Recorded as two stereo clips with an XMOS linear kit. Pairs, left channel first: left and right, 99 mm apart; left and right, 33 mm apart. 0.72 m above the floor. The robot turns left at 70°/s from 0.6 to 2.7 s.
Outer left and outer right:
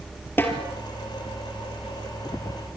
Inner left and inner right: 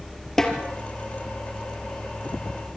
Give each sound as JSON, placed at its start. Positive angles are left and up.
{"t": 0.4, "sound": "a snare drum", "side_deg": 20, "distance_m": 3.5}